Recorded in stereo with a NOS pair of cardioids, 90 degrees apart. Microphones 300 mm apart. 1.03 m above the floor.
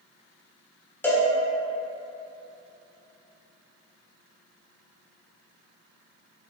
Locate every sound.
1.0 s a cowbell: 5° left, 0.9 m